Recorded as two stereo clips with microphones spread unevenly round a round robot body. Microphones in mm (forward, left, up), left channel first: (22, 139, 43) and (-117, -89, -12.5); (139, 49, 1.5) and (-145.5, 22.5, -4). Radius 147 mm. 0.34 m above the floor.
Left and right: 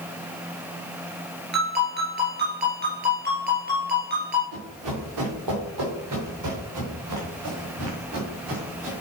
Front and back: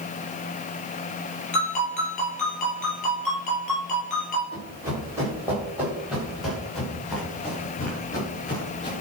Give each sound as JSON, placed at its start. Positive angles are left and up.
{"t": 1.5, "sound": "a ringtone", "azimuth_deg": -65, "distance_m": 3.0}
{"t": 4.5, "sound": "running footsteps", "azimuth_deg": -100, "distance_m": 5.0}